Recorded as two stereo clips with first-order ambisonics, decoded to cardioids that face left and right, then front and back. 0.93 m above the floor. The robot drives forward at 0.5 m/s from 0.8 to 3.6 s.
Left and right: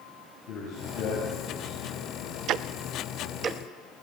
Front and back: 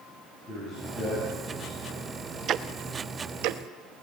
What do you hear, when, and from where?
0.5 s a man speaking: 60° left, 8.5 m; by 2.3 s 65° left, 8 m
2.5 s ticking: 130° right, 0.6 m; by 3.6 s 155° right, 1.0 m